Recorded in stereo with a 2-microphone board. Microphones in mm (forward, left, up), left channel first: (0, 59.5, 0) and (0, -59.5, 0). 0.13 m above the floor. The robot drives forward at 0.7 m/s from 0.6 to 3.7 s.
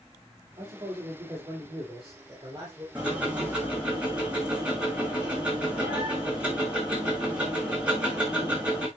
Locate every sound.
0.6 s a man speaking: 35° right (ahead or behind), 3.5 m; by 2.9 s 25° right (ahead or behind), 4.5 m
3.0 s ticking: 10° right (ahead or behind), 6.5 m